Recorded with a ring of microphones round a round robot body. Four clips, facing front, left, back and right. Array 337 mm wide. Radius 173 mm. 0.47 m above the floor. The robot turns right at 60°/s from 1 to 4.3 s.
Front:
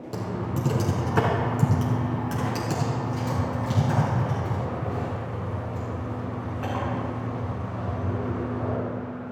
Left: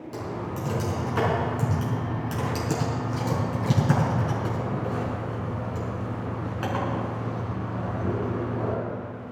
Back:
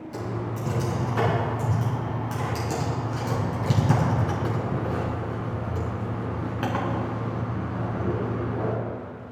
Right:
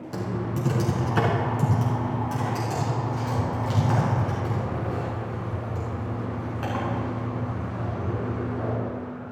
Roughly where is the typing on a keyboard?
Ahead right.